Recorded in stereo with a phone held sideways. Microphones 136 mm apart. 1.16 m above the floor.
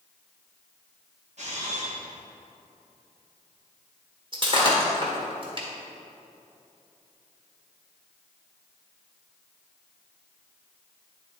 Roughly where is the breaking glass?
Right.